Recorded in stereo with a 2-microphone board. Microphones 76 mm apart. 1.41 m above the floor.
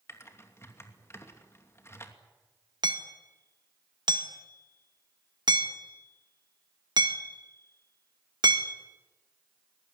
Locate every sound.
0.1 s typing on a keyboard: 35° left (ahead or behind), 2.5 m
2.8 s hammering: 65° right (ahead or behind), 1.9 m